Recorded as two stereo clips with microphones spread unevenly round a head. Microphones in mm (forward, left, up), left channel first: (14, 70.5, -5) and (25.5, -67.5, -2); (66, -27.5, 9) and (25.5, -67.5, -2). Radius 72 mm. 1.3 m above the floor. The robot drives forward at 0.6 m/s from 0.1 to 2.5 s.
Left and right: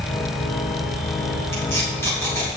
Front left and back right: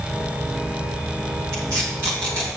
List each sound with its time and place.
1.5 s tape being pulled: 165° left, 3.5 m; by 2.5 s 170° left, 4 m